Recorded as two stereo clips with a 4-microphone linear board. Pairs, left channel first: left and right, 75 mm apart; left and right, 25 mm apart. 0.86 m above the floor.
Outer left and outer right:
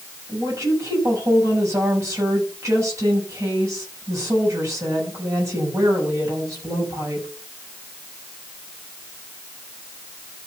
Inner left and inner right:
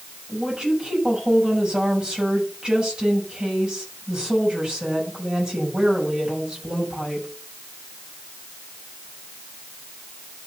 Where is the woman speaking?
45° right (ahead or behind), 6.5 m.